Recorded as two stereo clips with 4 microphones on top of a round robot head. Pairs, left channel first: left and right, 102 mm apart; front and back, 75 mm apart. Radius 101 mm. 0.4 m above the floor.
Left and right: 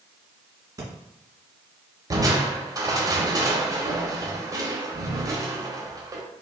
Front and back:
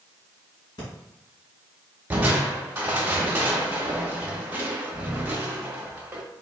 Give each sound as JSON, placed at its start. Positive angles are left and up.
{"t": 0.8, "sound": "breathing", "azimuth_deg": -40, "distance_m": 2.0}
{"t": 2.1, "sound": "crushing", "azimuth_deg": -125, "distance_m": 1.2}